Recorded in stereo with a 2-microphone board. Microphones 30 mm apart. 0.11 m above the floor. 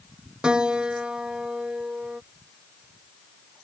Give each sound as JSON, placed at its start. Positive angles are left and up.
{"t": 0.4, "sound": "a piano", "side_deg": -30}